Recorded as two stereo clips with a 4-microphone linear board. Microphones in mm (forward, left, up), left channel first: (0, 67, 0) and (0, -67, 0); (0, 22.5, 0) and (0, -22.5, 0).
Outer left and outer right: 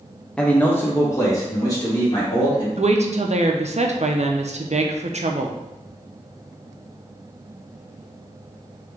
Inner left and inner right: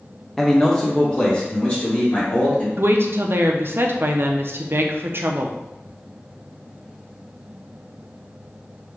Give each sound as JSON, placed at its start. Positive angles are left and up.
{"t": 0.4, "sound": "a man speaking", "side_deg": 5, "distance_m": 0.5}
{"t": 2.8, "sound": "a woman speaking", "side_deg": -55, "distance_m": 0.5}